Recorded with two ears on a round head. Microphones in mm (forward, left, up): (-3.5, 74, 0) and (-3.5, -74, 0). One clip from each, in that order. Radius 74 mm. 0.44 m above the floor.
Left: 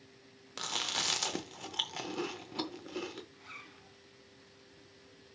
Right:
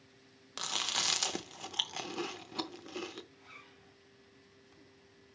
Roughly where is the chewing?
Centre.